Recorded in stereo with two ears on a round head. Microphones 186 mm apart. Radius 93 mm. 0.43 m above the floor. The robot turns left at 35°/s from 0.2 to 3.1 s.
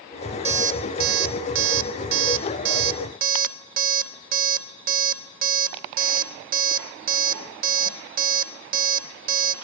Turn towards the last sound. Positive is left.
turn(degrees=-45)  # may be behind; listen again after turning